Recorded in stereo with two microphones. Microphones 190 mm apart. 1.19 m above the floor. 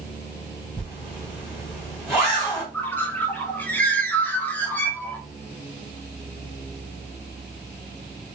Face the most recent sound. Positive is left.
turn(degrees=10)  # may be behind; listen again after turning